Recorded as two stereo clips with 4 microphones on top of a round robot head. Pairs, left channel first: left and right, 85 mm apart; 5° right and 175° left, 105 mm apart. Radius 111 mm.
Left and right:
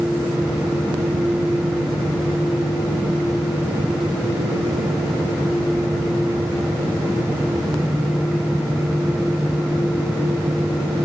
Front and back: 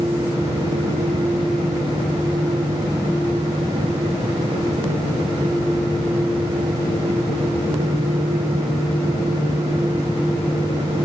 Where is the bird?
No bird in this recording.